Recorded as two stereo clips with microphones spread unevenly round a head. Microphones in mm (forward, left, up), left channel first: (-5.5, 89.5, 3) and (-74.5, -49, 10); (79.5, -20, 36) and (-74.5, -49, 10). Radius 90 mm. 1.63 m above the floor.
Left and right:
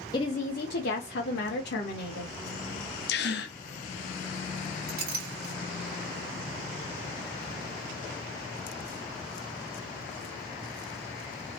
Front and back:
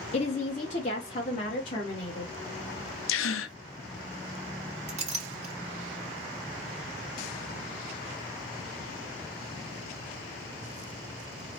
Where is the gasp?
20° left, 0.5 m.